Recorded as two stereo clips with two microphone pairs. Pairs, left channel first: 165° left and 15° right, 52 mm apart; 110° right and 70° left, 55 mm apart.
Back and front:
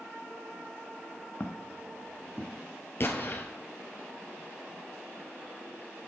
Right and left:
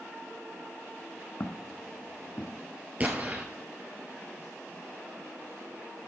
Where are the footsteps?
135° right, 0.9 m; by 2.6 s 145° right, 1.6 m.